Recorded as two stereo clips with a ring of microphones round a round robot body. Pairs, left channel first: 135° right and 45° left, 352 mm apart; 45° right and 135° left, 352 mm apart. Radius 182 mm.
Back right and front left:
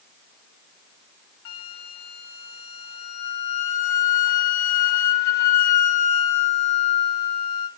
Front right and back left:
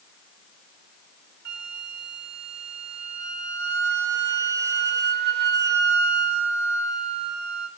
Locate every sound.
1.4 s a flute: 165° right, 2.5 m